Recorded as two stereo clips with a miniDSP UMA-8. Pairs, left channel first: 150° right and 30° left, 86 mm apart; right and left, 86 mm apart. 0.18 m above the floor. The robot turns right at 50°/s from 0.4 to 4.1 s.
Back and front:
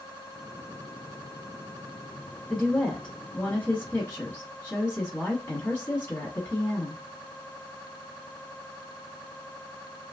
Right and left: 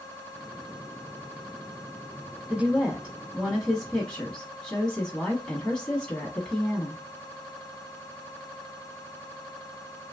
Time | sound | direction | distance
2.5 | a woman speaking | 125° left | 1.0 m